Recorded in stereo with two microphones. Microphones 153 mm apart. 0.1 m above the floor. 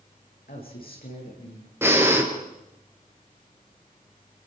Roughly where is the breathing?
Centre.